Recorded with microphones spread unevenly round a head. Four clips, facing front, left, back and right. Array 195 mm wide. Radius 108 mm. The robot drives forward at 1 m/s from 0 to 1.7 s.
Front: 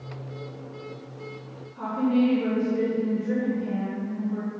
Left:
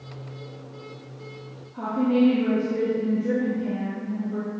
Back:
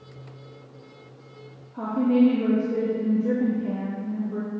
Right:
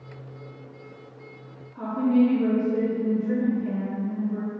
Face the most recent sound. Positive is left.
turn(degrees=165)